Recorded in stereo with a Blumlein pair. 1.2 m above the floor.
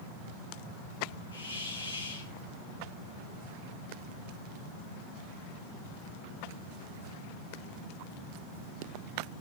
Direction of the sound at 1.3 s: 70° left.